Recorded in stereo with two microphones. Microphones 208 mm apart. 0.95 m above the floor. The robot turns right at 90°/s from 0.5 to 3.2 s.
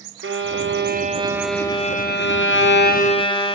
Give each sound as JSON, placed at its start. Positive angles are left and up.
{"t": 0.2, "sound": "a violin", "azimuth_deg": -90, "distance_m": 0.7}